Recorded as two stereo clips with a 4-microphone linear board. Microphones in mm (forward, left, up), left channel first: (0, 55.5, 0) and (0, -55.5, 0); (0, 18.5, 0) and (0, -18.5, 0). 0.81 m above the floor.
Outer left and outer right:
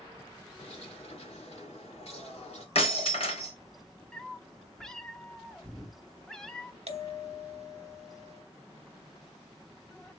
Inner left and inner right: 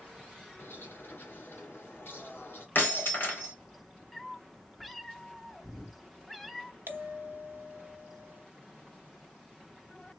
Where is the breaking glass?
60° left (ahead or behind), 2.5 m.